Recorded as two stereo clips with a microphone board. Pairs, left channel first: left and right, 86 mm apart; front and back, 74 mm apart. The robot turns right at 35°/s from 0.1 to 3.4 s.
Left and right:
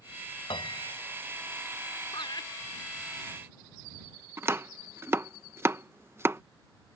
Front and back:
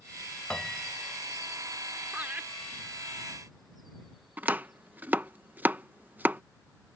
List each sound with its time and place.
0.5 s a piano: 80° left; by 1.2 s 100° left
2.1 s laughter: 105° left; by 2.5 s 120° left
4.4 s chopping: 130° right